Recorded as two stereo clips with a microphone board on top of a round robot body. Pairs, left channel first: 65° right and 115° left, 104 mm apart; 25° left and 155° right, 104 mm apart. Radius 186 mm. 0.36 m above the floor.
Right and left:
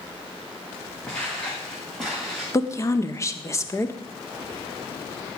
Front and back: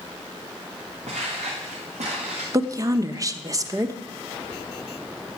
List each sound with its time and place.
1.1 s footsteps: 150° right, 4.5 m; by 2.4 s 160° right, 4 m
2.5 s a woman speaking: 115° right, 1.5 m